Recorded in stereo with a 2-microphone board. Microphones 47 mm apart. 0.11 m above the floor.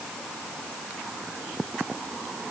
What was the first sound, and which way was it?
Only background noise.